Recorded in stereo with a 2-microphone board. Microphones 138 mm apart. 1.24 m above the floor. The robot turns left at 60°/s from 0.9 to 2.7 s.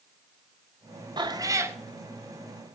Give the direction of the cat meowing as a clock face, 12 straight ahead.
4 o'clock.